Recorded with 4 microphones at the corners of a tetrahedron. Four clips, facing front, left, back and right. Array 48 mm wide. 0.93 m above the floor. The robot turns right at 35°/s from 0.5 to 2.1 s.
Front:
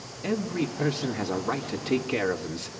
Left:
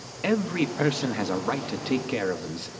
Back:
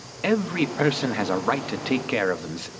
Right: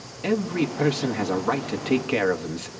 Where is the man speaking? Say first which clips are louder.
Right 1 dB, back 5 dB; 160° left, 1.0 m; by 2.7 s 145° right, 1.0 m.